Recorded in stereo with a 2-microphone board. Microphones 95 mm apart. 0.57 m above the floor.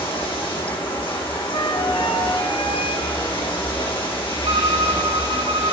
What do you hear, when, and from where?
0.0 s running water: 65° left (ahead or behind), 5.5 m
1.5 s a flute: 65° left (ahead or behind), 1.5 m
4.5 s a violin: 70° right (ahead or behind), 1.5 m